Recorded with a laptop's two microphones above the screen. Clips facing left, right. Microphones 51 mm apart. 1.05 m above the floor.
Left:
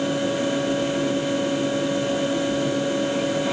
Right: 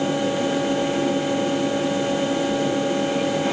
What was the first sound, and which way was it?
A fan, 55° right (ahead or behind).